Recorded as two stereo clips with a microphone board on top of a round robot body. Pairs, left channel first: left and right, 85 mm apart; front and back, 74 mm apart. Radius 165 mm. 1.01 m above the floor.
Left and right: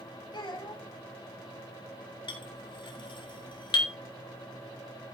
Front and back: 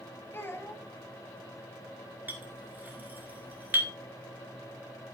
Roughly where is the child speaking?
Ahead left.